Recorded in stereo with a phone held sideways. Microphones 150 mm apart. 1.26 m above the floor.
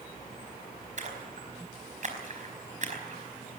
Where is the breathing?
No breathing in this recording.